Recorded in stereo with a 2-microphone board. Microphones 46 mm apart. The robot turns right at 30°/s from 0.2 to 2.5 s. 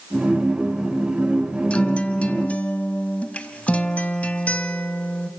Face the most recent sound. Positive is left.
turn(degrees=25)  # may be behind; listen again after turning